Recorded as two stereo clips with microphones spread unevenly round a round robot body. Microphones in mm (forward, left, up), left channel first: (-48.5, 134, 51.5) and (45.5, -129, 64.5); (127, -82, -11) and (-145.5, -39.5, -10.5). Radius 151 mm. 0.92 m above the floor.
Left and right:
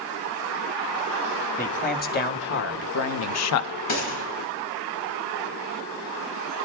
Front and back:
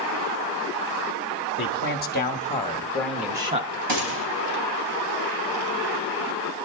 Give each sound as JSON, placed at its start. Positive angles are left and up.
{"t": 1.6, "sound": "a man speaking", "azimuth_deg": 45, "distance_m": 1.5}
{"t": 3.9, "sound": "a gunshot", "azimuth_deg": 145, "distance_m": 4.5}